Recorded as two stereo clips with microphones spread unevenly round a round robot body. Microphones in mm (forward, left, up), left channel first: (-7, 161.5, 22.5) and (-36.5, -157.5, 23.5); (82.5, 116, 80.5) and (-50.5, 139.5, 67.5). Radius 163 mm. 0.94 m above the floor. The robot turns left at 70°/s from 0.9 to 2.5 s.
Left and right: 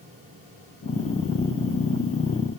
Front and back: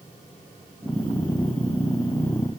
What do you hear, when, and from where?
Only background noise.